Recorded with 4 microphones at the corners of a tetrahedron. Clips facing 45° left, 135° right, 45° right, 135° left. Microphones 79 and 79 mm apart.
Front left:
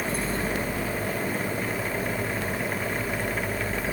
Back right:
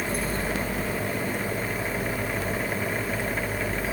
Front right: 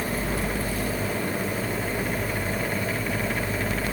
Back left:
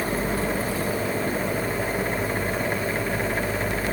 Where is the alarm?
No alarm in this recording.